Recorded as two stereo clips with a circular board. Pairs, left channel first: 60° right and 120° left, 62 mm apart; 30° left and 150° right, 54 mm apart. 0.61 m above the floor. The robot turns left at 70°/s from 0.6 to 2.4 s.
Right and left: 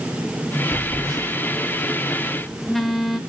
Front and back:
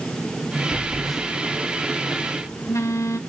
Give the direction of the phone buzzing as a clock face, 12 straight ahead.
7 o'clock.